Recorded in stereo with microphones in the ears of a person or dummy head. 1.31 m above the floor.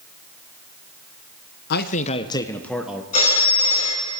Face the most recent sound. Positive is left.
turn(degrees=35)  # may be behind; listen again after turning